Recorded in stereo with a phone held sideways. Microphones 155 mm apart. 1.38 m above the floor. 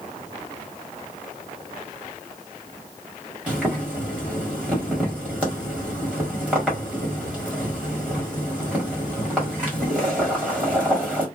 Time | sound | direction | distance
3.5 | boiling | 10° right (ahead or behind) | 1.8 m